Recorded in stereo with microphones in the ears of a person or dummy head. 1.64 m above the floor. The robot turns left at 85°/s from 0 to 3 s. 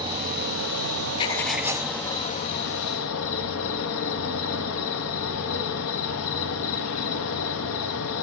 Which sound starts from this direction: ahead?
An insect, at 0.0 s.